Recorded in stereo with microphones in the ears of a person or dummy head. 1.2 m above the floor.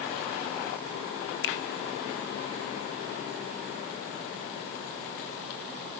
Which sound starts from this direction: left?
A finger snap, at 1.4 s.